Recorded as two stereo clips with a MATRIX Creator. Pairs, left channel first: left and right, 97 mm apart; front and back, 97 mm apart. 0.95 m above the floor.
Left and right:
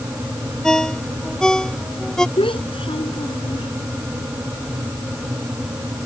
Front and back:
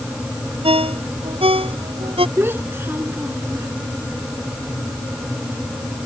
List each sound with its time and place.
0.6 s a ringtone: 175° left
2.4 s a child speaking: 115° left